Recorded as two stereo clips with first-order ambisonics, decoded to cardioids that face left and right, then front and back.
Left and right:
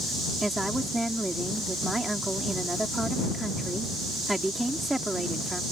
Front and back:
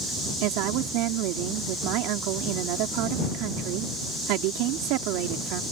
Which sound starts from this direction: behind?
A woman speaking, at 0.4 s.